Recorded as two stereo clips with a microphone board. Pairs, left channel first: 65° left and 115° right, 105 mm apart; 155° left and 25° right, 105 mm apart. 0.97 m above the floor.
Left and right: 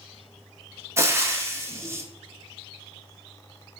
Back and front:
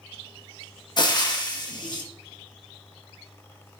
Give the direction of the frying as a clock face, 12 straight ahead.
6 o'clock.